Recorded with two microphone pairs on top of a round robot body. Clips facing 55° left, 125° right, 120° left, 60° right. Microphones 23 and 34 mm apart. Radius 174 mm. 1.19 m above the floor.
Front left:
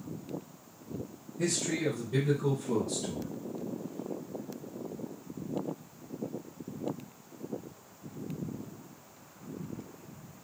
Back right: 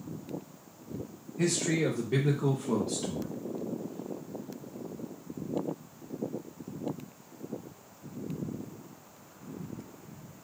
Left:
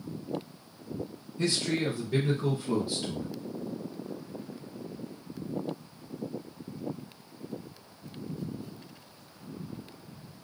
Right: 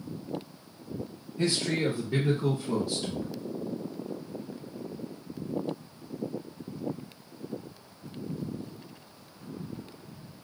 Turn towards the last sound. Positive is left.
turn(degrees=170)